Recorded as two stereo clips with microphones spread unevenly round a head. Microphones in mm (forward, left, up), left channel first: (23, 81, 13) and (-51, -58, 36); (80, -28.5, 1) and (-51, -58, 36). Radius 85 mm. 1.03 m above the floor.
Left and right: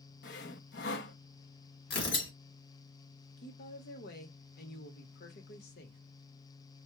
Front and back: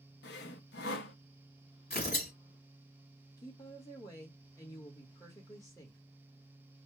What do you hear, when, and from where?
0.2 s sawing: 30° left, 0.6 m
1.9 s tearing paper: 70° left, 1.4 m
3.4 s a woman speaking: 85° left, 1.3 m